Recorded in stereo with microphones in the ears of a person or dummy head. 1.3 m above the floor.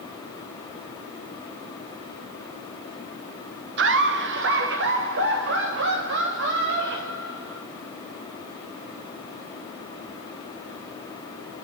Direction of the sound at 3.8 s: 50° right (ahead or behind).